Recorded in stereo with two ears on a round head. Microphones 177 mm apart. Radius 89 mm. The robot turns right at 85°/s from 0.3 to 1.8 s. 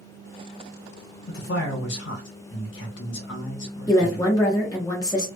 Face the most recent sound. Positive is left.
turn(degrees=20)  # may be behind; listen again after turning